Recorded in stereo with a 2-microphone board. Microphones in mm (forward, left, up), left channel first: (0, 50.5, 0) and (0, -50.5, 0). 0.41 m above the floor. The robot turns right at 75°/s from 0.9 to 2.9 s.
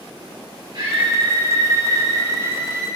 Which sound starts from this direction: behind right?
A scream, at 0.7 s.